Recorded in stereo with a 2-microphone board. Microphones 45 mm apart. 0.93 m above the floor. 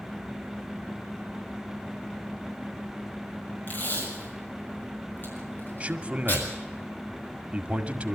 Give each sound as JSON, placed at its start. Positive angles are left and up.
{"t": 3.7, "sound": "tape being pulled", "side_deg": 45, "distance_m": 6.5}
{"t": 5.8, "sound": "a man speaking", "side_deg": -25, "distance_m": 1.9}